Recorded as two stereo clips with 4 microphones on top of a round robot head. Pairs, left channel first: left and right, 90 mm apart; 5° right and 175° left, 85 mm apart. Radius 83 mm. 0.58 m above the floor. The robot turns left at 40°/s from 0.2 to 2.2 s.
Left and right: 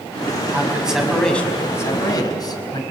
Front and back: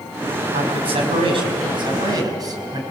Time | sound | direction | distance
0.5 | a man speaking | 160° right | 5 m